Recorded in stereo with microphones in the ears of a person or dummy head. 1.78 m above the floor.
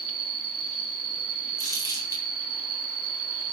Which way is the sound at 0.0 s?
25° right (ahead or behind).